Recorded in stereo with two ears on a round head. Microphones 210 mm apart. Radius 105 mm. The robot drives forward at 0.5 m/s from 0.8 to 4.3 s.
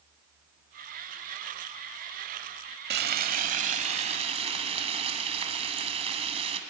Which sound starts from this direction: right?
Frying, at 2.9 s.